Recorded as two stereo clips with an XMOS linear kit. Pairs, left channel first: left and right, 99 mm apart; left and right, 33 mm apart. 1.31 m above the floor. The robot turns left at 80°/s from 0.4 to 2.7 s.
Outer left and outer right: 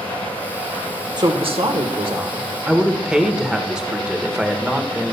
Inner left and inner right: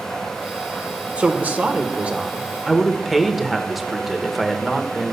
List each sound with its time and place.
1.2 s a woman speaking: 45° right, 1.1 m; by 5.1 s 170° right, 1.1 m